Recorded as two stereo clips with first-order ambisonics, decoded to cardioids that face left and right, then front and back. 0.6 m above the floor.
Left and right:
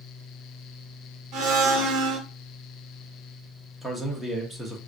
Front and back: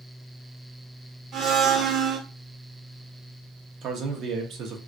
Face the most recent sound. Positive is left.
turn(degrees=175)